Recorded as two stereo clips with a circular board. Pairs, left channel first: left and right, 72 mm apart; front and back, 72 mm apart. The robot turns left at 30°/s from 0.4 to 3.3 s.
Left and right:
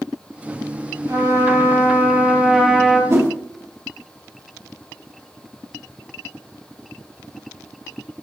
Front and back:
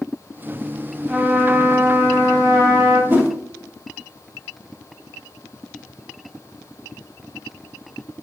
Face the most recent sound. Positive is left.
turn(degrees=-130)